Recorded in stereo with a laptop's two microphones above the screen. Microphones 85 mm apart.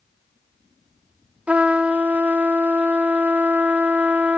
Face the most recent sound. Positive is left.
turn(degrees=-15)  # may be behind; listen again after turning